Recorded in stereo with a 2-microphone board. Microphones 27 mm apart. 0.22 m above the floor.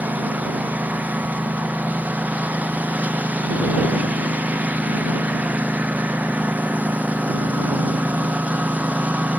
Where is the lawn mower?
75° right (ahead or behind); by 9.4 s 65° right (ahead or behind).